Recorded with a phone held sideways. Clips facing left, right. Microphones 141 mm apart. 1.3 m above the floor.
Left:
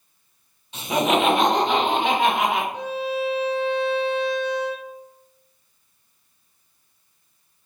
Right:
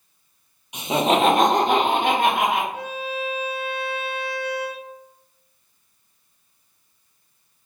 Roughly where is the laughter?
Centre.